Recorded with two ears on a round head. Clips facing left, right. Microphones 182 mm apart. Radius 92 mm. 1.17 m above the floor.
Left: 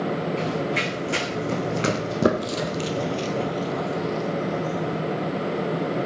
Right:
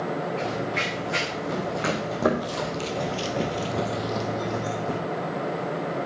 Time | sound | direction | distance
0.4 | running footsteps | 45° left (ahead or behind) | 4.5 m